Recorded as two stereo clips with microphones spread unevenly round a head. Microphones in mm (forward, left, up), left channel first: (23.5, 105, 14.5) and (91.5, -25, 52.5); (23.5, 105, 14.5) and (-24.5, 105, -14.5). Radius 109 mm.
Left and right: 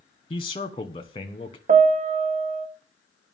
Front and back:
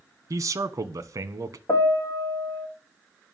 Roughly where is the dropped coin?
No dropped coin in this recording.